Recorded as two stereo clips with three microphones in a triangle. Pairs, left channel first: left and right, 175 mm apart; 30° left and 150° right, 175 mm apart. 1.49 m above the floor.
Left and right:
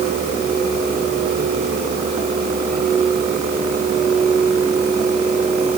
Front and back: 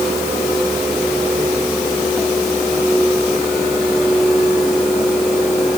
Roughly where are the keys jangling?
I don't hear keys jangling.